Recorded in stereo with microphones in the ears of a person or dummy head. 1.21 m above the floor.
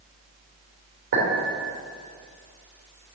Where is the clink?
60° right (ahead or behind), 3 m.